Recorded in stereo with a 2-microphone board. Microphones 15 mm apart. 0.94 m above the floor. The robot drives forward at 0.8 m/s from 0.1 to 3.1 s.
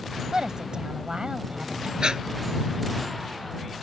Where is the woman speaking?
60° right (ahead or behind); by 1.9 s 70° right (ahead or behind).